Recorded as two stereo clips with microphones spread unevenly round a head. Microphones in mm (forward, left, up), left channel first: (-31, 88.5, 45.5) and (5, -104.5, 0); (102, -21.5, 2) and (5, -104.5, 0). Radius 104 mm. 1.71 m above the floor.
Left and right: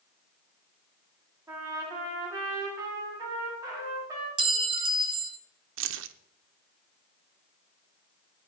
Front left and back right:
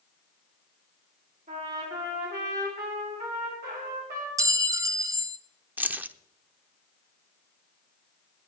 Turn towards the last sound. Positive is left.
turn(degrees=-65)